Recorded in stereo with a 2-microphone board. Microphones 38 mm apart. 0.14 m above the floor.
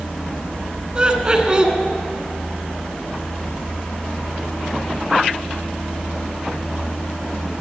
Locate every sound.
0.9 s laughter: 25° right (ahead or behind), 1.5 m